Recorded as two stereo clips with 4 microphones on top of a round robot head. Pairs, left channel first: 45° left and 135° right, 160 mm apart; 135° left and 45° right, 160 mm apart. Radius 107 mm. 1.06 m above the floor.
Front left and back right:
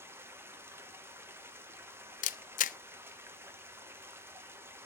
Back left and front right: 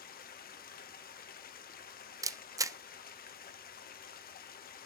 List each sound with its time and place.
0.0 s running water: 150° left, 1.0 m
2.2 s a camera shutter: 25° left, 0.5 m